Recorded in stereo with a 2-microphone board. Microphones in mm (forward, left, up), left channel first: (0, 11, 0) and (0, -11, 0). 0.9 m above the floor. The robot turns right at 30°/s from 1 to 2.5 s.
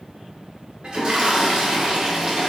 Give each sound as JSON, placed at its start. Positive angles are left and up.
{"t": 0.8, "sound": "a toilet flushing", "azimuth_deg": -80, "distance_m": 0.7}